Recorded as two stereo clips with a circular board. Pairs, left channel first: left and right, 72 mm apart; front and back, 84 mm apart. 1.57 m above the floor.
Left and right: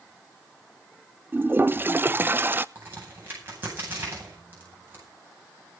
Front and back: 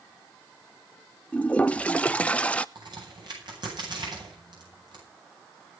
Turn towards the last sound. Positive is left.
turn(degrees=-150)